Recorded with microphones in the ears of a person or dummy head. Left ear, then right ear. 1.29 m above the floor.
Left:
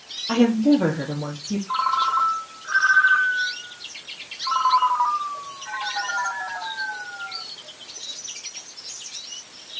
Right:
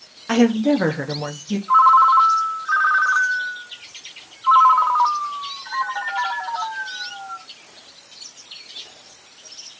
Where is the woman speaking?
55° right (ahead or behind), 0.9 m.